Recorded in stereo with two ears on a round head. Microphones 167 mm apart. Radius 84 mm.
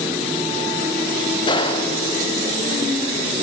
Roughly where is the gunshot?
Left.